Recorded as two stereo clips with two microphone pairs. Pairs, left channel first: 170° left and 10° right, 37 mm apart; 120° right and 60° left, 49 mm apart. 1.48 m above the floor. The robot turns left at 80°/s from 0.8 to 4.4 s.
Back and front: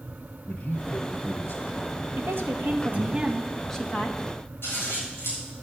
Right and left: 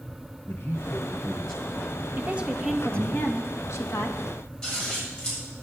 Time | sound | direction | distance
0.5 | a man speaking | 165° right | 1.6 m
2.2 | a woman speaking | 15° left | 1.8 m
4.6 | scissors | 170° left | 8 m